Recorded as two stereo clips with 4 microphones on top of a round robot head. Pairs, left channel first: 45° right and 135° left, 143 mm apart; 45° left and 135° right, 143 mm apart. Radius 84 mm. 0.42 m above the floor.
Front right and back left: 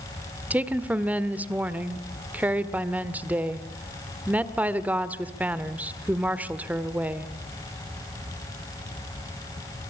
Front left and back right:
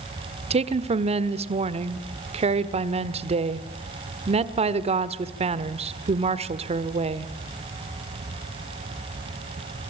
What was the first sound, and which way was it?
A woman speaking, 145° right.